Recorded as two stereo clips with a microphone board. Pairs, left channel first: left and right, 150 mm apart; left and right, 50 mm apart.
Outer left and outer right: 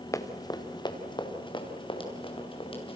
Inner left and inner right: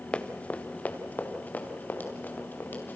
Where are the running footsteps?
20° left (ahead or behind), 1.6 m; by 3.0 s 35° left (ahead or behind), 5 m.